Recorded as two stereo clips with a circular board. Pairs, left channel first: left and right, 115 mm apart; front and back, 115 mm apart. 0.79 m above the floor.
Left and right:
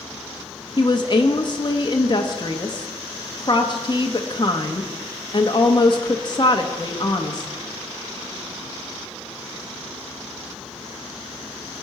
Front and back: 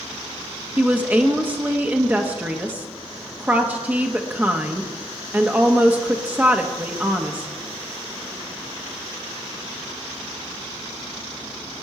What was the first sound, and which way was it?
A woman speaking, 110° left.